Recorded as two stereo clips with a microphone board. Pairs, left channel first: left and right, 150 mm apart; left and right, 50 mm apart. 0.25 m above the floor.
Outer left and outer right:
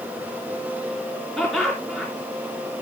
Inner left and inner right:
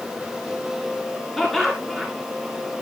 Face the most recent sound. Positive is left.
turn(degrees=0)  # may be behind; listen again after turning